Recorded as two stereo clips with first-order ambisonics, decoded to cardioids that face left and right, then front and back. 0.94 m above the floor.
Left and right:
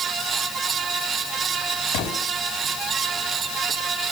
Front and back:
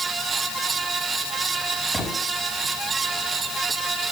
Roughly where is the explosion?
Left.